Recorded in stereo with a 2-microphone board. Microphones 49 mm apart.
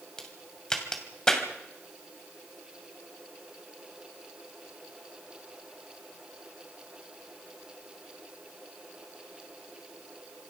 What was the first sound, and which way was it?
A crack, 15° left (ahead or behind).